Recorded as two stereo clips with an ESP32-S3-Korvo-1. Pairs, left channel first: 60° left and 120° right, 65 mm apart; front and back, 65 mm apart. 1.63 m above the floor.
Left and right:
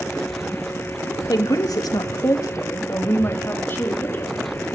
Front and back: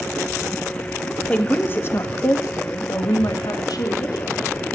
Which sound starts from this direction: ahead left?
A woman speaking, at 1.3 s.